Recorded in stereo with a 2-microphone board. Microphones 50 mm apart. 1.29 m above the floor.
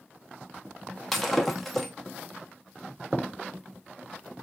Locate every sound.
1.1 s breaking glass: centre (ahead or behind), 1.0 m